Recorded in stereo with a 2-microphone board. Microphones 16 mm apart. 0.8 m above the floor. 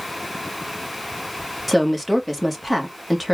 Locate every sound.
1.7 s a woman speaking: 5° left (ahead or behind), 1.3 m